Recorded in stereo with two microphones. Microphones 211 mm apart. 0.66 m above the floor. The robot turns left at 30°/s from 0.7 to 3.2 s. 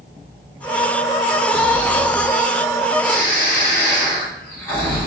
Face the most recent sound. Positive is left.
turn(degrees=170)